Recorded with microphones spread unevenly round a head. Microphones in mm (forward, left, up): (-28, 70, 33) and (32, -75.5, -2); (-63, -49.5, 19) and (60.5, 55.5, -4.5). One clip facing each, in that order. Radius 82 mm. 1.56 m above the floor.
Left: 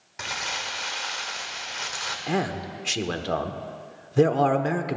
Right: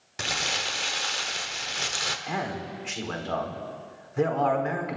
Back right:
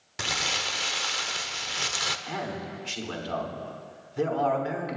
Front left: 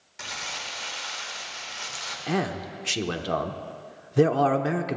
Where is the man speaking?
65° left, 1.1 m.